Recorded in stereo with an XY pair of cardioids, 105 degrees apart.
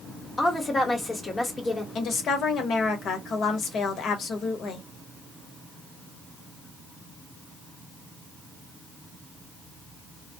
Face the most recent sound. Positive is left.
turn(degrees=60)